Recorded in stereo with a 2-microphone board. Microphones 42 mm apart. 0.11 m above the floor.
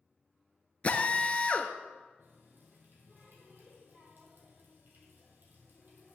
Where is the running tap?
50° right (ahead or behind), 2.5 m.